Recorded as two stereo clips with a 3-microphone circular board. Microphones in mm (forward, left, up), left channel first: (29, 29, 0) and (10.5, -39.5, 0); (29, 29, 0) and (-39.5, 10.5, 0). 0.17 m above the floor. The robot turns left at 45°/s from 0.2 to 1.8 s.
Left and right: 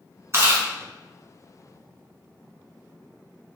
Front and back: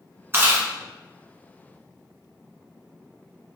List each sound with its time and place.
0.3 s chewing: 130° right, 1.2 m; by 0.7 s 145° right, 1.2 m